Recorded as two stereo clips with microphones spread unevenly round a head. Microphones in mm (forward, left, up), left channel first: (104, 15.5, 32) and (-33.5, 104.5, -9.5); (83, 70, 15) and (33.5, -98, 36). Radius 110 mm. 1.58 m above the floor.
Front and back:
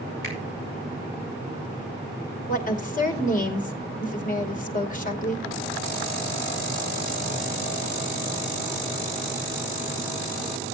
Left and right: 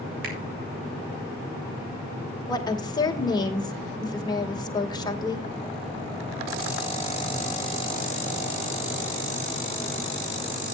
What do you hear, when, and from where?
0.2 s a finger snap: 110° right, 5.5 m
2.5 s a woman speaking: 5° left, 2.5 m